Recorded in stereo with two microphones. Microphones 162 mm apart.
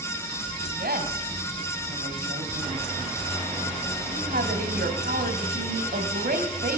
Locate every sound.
0.7 s a woman speaking: 60° right (ahead or behind), 2.5 m